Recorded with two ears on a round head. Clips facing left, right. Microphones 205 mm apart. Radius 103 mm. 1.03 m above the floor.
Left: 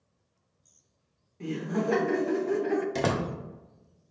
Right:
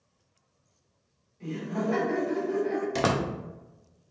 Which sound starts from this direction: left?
Laughter, at 1.4 s.